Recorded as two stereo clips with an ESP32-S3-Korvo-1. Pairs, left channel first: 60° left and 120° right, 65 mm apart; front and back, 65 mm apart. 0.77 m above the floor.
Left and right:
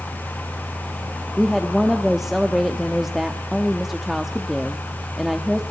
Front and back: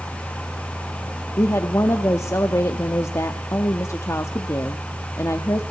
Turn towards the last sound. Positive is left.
turn(degrees=-35)